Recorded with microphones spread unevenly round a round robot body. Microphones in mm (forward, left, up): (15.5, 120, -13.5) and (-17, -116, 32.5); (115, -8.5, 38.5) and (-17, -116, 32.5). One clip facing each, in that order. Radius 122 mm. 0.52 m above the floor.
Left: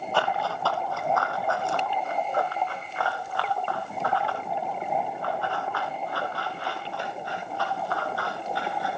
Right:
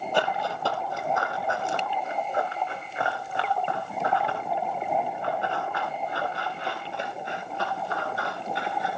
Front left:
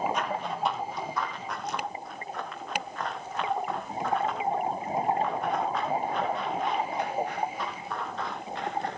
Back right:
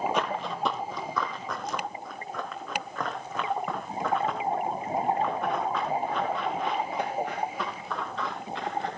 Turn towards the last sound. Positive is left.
turn(degrees=-165)